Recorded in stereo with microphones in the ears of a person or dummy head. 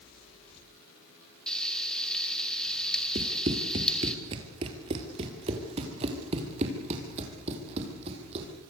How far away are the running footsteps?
About 1.9 m.